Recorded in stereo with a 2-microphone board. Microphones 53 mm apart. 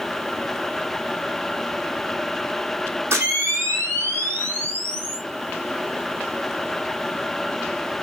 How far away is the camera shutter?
About 2.5 m.